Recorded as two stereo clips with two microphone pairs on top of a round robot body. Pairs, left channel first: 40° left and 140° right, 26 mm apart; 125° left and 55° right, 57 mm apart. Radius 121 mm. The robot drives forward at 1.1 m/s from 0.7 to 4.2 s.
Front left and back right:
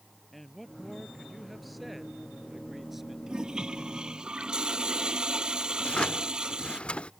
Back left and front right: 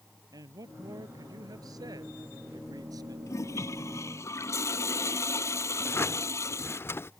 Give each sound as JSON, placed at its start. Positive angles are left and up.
{"t": 0.3, "sound": "a man speaking", "azimuth_deg": -40}
{"t": 3.3, "sound": "a toilet flushing", "azimuth_deg": 165}
{"t": 5.8, "sound": "a drawer", "azimuth_deg": 80}